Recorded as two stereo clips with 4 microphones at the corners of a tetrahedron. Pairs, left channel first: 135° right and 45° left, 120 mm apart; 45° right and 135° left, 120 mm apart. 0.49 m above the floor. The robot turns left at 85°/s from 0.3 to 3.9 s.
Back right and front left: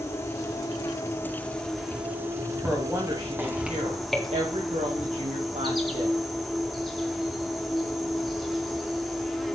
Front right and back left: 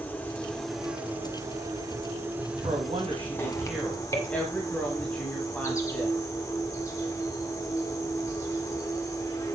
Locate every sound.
0.0 s an insect: 100° right, 1.8 m; by 9.6 s 45° right, 1.8 m
2.6 s a woman speaking: 145° left, 3 m; by 6.2 s 35° left, 3 m